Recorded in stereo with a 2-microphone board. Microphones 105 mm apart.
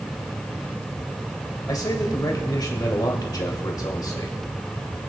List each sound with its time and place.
1.7 s a man speaking: 40° left (ahead or behind), 2 m